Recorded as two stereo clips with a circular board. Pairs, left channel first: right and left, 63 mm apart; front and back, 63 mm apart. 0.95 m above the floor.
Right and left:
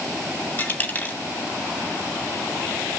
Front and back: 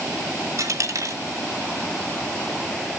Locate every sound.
0.6 s a dropped coin: 150° right, 2 m